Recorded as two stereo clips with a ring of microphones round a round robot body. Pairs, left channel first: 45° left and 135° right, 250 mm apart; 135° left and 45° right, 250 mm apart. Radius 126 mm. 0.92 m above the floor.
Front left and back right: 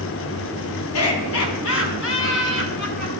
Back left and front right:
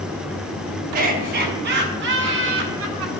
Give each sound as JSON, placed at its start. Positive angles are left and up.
{"t": 0.9, "sound": "laughter", "azimuth_deg": 15, "distance_m": 7.5}